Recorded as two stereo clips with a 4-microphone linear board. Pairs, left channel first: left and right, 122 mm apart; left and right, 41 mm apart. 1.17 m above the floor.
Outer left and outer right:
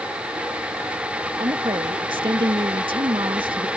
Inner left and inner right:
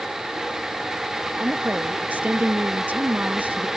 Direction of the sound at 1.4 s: 40° right (ahead or behind).